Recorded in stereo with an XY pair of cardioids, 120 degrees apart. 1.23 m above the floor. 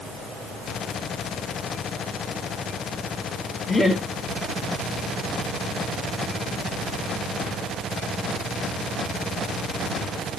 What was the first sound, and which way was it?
Laughter, 25° left.